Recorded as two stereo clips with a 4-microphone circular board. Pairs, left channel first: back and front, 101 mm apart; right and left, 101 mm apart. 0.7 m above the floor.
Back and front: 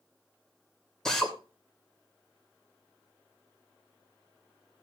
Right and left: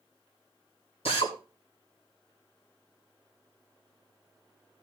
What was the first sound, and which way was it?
A drill, 95° right.